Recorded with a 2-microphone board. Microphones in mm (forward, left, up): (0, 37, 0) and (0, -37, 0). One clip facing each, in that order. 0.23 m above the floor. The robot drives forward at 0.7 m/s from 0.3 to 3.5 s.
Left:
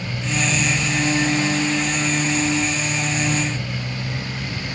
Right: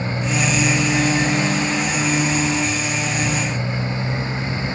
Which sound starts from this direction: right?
A motorcycle, at 0.0 s.